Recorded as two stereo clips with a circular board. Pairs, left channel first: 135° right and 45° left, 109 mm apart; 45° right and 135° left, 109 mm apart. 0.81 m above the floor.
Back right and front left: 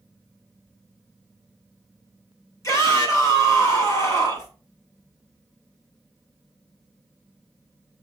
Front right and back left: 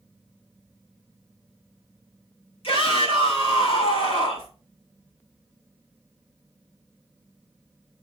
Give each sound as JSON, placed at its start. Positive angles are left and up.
{"t": 2.6, "sound": "a shout", "azimuth_deg": -75, "distance_m": 5.5}